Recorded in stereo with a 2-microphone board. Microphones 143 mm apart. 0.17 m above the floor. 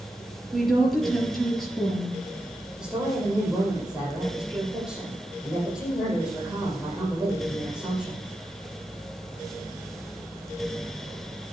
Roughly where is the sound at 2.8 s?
Centre.